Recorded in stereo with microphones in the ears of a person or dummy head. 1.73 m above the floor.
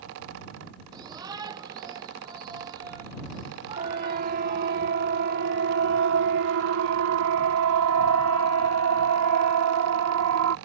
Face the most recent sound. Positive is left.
turn(degrees=-75)  # may be behind; listen again after turning